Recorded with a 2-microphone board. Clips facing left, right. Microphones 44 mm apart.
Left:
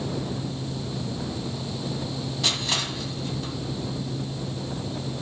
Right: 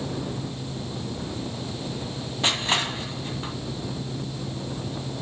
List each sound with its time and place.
2.4 s crushing: 30° right (ahead or behind), 1.6 m